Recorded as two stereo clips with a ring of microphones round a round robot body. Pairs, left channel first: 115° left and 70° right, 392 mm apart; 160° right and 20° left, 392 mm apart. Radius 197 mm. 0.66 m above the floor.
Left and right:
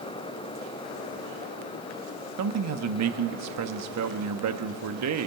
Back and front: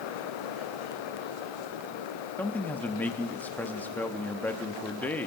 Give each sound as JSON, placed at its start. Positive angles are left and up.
{"t": 2.4, "sound": "a man speaking", "azimuth_deg": -75, "distance_m": 1.0}